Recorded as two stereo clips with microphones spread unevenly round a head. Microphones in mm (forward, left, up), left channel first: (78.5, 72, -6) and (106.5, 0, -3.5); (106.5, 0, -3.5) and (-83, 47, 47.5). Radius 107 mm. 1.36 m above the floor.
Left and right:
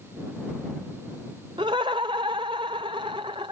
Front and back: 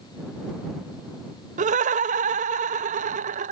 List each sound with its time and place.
1.6 s laughter: 135° right